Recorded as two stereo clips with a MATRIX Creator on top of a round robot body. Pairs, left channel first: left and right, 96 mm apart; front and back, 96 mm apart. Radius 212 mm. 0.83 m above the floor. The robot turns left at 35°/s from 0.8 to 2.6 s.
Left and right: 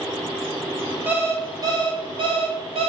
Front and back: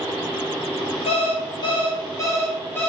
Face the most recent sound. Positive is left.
turn(degrees=-70)